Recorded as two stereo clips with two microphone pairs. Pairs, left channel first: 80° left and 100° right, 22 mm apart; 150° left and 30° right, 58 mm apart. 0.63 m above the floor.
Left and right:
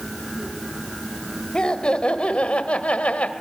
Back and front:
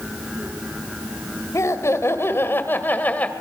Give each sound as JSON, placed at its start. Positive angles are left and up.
{"t": 1.5, "sound": "laughter", "azimuth_deg": 125, "distance_m": 2.5}